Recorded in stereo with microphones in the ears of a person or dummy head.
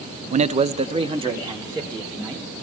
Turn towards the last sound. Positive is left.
turn(degrees=-20)  # may be behind; listen again after turning